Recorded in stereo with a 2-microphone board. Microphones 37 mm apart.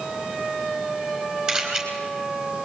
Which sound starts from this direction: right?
A camera shutter, at 1.5 s.